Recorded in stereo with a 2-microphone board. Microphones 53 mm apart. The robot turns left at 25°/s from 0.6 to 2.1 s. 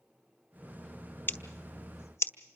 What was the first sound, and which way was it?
Scissors, 40° left (ahead or behind).